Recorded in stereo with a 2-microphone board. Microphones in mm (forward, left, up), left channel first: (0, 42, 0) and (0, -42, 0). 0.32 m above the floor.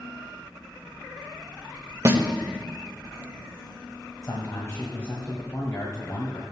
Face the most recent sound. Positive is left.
turn(degrees=40)  # may be behind; listen again after turning